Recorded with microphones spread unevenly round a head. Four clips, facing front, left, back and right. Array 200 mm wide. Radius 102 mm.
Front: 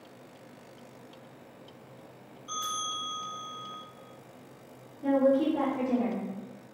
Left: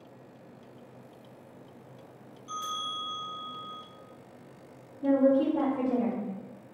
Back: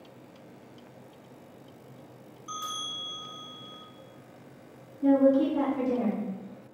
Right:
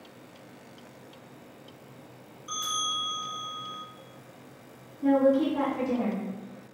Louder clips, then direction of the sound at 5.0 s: Right 1 dB, back 3 dB; 165° right.